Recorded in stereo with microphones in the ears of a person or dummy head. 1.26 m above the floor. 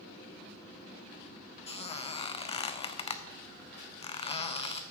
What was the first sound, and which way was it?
A squeak, 35° left (ahead or behind).